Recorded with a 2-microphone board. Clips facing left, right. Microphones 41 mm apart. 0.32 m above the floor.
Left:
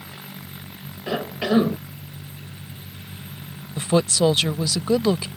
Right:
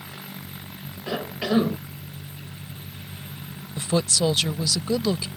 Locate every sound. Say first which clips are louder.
1.1 s a cough: left 3 dB; 15° left (ahead or behind)
3.8 s a woman speaking: left 4 dB; 25° left (ahead or behind)